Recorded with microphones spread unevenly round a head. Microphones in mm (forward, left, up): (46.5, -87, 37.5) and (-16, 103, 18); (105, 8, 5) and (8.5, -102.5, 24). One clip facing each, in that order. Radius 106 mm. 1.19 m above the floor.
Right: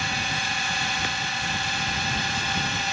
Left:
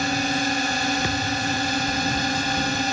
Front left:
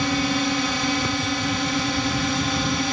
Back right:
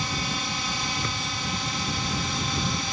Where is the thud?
130° left.